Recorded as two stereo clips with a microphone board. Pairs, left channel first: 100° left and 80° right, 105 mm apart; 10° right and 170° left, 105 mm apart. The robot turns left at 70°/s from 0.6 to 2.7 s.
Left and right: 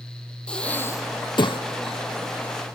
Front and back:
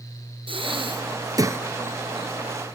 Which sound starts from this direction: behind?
Breathing, at 0.5 s.